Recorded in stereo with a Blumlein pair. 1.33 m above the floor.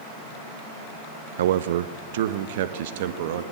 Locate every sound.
1.4 s a man speaking: 60° right, 0.7 m; by 3.4 s 55° right, 1.9 m